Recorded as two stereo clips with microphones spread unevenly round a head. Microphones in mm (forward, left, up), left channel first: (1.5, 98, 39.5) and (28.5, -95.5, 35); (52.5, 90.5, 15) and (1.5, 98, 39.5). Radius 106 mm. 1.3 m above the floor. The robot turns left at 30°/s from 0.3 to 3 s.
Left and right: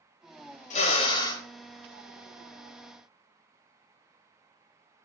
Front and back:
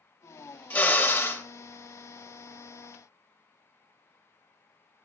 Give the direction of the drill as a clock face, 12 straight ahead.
11 o'clock.